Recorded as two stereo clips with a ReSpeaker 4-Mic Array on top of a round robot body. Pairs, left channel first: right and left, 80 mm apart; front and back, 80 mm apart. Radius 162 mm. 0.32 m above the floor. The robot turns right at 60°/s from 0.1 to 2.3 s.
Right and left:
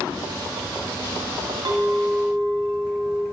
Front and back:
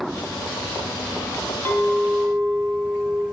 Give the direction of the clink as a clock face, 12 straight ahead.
10 o'clock.